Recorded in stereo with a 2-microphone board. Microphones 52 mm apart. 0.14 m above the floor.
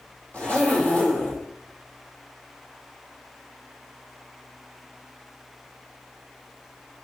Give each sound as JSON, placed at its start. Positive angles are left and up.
{"t": 0.3, "sound": "a zipper", "side_deg": 25, "distance_m": 2.0}